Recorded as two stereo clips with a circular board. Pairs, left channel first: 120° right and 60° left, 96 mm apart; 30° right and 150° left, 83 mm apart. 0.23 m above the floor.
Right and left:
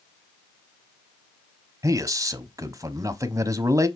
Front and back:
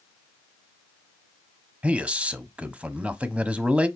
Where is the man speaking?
85° left, 1.1 m.